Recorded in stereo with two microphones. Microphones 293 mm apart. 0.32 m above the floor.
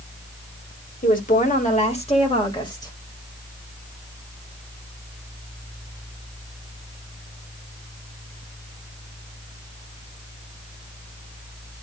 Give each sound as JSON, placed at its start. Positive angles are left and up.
{"t": 1.0, "sound": "a woman speaking", "side_deg": 30, "distance_m": 1.6}